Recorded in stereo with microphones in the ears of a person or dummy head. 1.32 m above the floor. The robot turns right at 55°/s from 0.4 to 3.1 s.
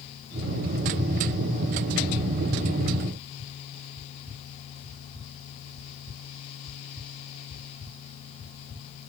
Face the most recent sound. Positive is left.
No sound to turn to.